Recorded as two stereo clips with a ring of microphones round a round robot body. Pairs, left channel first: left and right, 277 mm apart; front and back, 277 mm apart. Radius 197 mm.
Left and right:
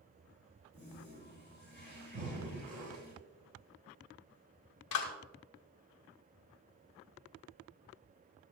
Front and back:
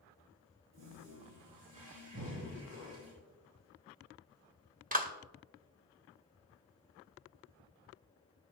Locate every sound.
0.7 s a toilet flushing: 160° right, 5 m
2.1 s breathing: 120° right, 2.5 m
4.9 s a clap: 120° left, 1.7 m